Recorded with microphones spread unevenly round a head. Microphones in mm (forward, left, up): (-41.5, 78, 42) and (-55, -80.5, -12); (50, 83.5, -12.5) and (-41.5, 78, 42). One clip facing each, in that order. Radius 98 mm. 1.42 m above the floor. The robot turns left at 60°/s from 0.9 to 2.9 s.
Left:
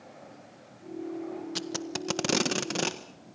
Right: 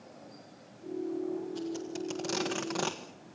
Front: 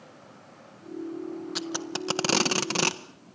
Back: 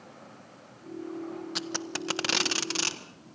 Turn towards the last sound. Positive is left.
turn(degrees=5)